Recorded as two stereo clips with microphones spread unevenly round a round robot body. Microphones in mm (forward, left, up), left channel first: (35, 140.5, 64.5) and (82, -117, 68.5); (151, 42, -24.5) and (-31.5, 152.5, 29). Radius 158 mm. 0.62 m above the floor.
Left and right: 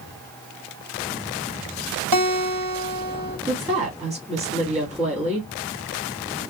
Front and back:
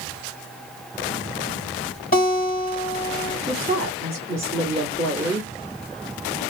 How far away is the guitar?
About 2.5 m.